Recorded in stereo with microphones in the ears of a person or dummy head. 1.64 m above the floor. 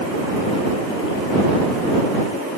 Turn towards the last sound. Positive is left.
No sound to turn to.